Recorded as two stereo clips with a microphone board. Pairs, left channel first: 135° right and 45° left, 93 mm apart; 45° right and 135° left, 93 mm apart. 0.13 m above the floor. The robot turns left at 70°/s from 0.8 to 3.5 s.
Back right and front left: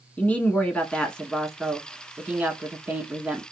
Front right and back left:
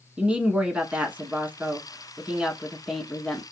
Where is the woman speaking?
175° right, 1.1 m; by 3.4 s 5° left, 1.1 m.